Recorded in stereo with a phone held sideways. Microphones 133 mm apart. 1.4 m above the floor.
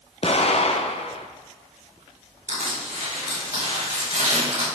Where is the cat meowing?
I don't hear a cat meowing.